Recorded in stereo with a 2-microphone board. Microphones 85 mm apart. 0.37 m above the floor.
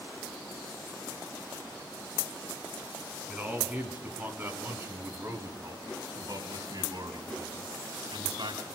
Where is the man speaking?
15° right (ahead or behind), 4 m; by 8.7 s 65° right (ahead or behind), 3.5 m.